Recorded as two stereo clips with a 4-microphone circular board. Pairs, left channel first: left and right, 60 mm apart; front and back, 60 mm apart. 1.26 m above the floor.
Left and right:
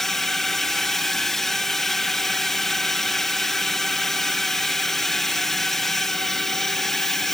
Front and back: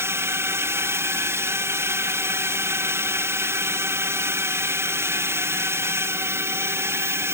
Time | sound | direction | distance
0.0 | a drone | 170° left | ?